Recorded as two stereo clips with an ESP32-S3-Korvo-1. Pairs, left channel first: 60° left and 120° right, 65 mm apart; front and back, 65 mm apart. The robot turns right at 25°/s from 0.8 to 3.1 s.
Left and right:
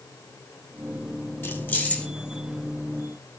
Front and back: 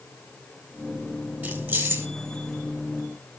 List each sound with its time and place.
1.4 s keys jangling: 120° left, 6 m; by 2.1 s 135° left, 6 m